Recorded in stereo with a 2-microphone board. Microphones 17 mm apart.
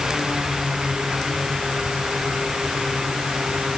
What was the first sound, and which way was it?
Only background noise.